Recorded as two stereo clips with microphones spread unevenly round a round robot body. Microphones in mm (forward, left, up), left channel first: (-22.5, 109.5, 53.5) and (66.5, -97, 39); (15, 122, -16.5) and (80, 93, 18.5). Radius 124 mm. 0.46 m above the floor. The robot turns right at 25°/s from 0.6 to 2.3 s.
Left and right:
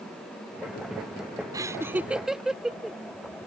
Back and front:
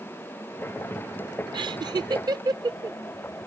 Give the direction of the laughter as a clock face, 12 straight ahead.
12 o'clock.